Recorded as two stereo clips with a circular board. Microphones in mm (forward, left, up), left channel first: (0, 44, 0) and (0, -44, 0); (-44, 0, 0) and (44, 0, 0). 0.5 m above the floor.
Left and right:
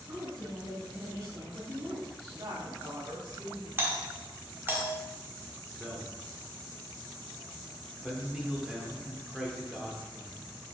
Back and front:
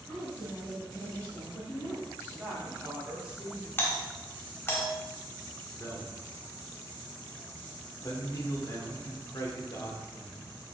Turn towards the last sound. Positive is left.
turn(degrees=-170)